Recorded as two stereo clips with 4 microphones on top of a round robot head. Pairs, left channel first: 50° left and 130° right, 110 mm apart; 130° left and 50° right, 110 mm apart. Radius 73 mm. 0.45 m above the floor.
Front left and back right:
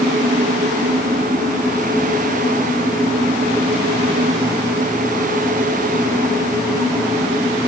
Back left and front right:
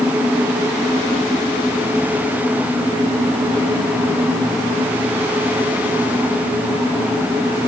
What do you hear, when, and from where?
Only background noise.